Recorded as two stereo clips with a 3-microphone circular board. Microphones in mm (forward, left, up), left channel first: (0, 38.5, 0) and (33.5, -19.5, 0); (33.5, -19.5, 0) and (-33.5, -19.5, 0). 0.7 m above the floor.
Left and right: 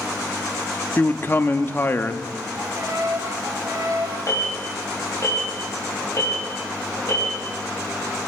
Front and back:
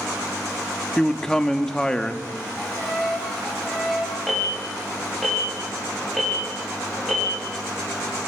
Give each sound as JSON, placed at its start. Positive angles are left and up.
{"t": 1.0, "sound": "a man speaking", "azimuth_deg": 75, "distance_m": 0.8}
{"t": 2.5, "sound": "a violin", "azimuth_deg": -90, "distance_m": 2.0}
{"t": 4.3, "sound": "an alarm", "azimuth_deg": 90, "distance_m": 4.0}